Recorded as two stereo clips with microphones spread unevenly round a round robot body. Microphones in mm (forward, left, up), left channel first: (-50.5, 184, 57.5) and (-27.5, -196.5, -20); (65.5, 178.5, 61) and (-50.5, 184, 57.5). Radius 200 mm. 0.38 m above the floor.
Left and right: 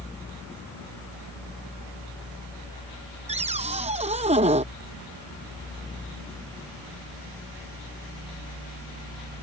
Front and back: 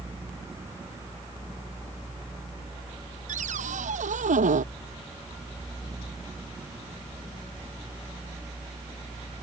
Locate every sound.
3.3 s a cupboard door: 160° right